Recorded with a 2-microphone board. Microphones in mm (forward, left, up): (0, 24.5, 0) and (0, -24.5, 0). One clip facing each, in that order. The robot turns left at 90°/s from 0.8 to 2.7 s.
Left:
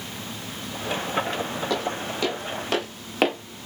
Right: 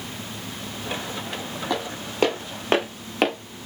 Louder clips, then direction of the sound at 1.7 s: Right 1 dB; 10° right (ahead or behind).